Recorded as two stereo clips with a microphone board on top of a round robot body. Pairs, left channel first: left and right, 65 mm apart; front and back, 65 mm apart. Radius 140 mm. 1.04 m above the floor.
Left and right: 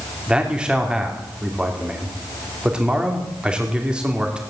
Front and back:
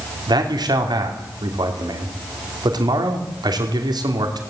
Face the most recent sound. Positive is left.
turn(degrees=-170)